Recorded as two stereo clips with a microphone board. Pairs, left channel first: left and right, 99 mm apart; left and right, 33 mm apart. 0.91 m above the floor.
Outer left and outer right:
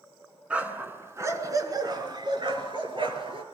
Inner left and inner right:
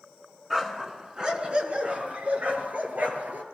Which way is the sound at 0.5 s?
15° right (ahead or behind).